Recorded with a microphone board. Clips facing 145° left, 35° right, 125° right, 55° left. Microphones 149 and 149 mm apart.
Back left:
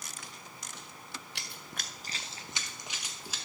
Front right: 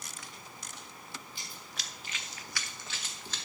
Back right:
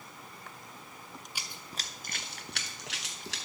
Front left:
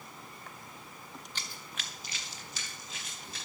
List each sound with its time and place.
1.4 s running footsteps: 155° left, 0.8 m; by 3.4 s 135° right, 1.8 m